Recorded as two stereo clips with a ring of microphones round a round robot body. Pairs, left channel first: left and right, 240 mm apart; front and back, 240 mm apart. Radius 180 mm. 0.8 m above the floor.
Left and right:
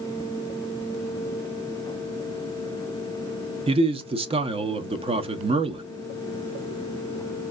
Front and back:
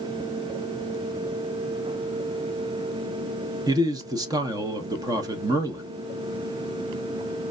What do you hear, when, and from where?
3.7 s a man speaking: 125° right, 0.6 m